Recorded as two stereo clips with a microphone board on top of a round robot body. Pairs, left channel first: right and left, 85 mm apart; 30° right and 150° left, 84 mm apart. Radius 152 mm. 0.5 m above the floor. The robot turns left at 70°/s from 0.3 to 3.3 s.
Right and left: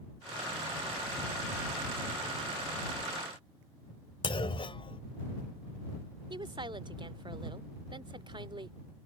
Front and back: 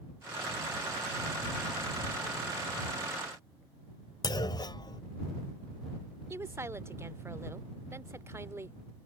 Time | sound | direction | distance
4.2 | a clunk | 70° right | ?
6.3 | a woman speaking | 95° left | ?